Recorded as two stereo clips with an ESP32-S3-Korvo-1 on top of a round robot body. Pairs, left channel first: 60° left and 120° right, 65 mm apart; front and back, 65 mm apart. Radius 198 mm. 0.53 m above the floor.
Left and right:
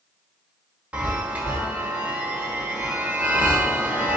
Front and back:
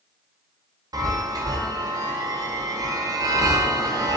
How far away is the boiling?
I don't hear boiling.